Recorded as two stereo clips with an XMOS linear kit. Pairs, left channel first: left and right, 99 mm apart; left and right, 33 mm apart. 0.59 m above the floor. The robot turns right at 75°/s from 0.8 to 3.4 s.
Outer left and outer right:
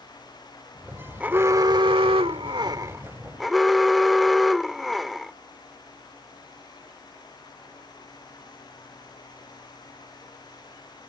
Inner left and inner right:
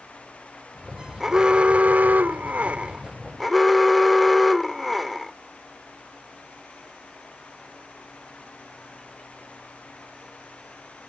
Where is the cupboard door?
No cupboard door in this recording.